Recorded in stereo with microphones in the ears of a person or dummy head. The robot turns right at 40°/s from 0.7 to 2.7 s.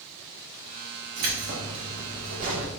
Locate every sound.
1.2 s keys jangling: 115° right, 1.0 m; by 2.7 s 55° right, 1.0 m